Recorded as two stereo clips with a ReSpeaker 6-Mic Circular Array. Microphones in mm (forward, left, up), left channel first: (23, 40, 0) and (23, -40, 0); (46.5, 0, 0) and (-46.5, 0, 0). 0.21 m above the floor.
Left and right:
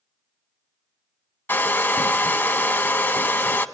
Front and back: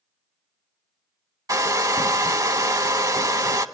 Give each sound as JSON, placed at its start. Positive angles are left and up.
{"t": 1.5, "sound": "a hair dryer", "azimuth_deg": 145, "distance_m": 0.5}